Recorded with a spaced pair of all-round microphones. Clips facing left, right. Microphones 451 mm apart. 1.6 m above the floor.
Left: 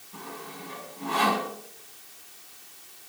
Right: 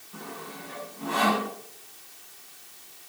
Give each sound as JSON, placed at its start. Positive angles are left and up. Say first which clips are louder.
{"t": 0.1, "sound": "sawing", "louder": "right 1 dB", "side_deg": 15, "distance_m": 8.5}